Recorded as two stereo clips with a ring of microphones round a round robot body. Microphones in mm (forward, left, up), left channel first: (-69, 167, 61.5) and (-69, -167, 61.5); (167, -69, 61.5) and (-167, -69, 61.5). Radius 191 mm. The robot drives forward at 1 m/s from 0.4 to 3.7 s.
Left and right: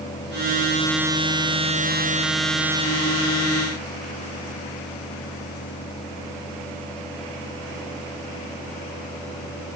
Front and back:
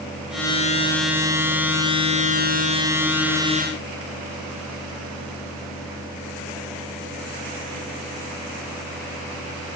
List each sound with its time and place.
Only background noise.